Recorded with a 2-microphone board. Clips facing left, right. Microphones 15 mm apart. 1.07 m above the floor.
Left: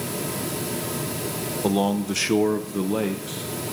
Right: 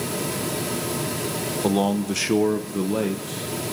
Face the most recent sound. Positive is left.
turn(degrees=10)  # may be behind; listen again after turning